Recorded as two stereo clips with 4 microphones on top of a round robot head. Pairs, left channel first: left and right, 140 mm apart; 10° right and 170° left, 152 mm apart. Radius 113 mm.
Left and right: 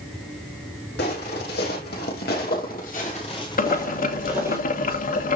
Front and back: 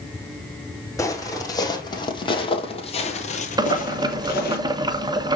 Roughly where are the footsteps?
Ahead left.